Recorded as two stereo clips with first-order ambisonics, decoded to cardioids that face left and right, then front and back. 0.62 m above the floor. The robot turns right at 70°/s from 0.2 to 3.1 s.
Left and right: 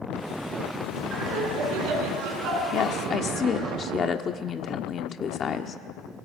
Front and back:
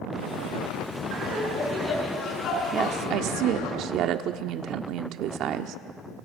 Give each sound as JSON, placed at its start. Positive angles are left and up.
{"t": 1.1, "sound": "laughter", "azimuth_deg": -145, "distance_m": 7.5}
{"t": 2.7, "sound": "a woman speaking", "azimuth_deg": 125, "distance_m": 1.2}